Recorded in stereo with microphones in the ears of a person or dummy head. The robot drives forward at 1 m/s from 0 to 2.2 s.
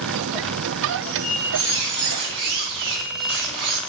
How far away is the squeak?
About 4 m.